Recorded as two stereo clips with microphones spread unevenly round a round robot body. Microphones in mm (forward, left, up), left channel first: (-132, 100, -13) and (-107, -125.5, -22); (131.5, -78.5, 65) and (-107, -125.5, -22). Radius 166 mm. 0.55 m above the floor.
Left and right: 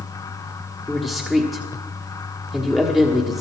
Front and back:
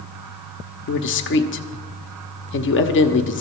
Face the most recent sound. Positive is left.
turn(degrees=0)